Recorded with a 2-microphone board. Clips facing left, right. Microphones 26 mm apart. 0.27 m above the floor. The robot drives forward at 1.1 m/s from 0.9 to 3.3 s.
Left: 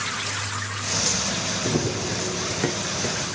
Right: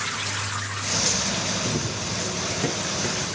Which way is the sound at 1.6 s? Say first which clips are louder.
Left 3 dB; 40° left (ahead or behind).